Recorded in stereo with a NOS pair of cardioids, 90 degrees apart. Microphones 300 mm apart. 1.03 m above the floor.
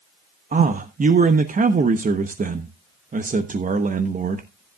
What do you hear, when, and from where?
0.5 s a man speaking: 25° right, 1.0 m